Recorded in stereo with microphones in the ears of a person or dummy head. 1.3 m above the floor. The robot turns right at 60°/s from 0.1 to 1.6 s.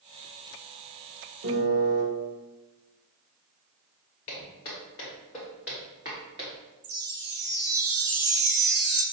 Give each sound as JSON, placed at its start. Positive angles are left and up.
{"t": 1.4, "sound": "a piano", "side_deg": -60, "distance_m": 1.1}
{"t": 4.3, "sound": "footsteps", "side_deg": 25, "distance_m": 1.4}
{"t": 6.8, "sound": "a chime", "side_deg": -55, "distance_m": 0.5}